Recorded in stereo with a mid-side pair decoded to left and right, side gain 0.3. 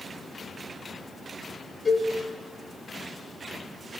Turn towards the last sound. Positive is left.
turn(degrees=30)